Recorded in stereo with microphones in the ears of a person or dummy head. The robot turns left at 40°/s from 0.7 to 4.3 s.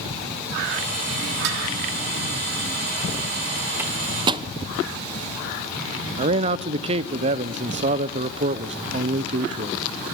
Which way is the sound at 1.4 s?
70° right (ahead or behind).